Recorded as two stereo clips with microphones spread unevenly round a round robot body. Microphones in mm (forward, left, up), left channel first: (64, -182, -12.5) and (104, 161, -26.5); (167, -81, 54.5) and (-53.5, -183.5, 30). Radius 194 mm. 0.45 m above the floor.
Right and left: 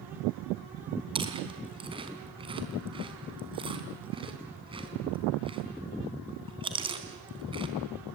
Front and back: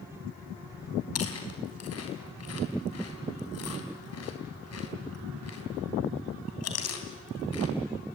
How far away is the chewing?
About 3.5 m.